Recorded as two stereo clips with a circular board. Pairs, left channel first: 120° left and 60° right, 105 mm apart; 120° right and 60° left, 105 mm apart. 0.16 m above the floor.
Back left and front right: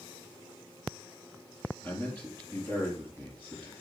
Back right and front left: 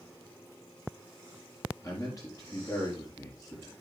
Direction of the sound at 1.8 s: 170° right.